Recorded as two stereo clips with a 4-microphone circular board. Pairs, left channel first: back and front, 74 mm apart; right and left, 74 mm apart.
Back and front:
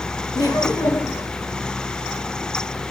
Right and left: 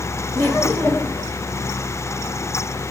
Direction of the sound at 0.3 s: 155° right.